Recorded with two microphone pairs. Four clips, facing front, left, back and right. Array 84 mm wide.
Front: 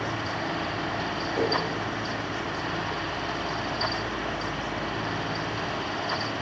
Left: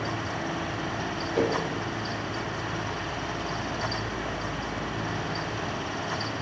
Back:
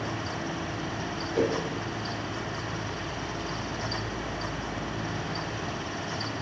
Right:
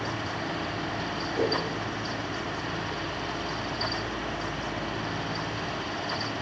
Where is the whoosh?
95° left, 1.4 m.